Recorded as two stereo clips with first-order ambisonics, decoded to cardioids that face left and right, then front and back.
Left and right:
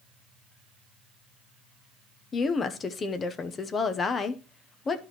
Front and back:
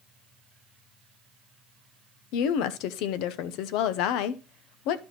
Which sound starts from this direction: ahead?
A woman speaking, at 2.3 s.